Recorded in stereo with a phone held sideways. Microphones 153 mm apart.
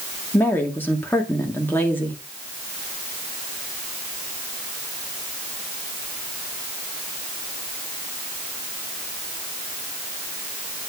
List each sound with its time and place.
0.3 s a woman speaking: 15° left (ahead or behind), 2 m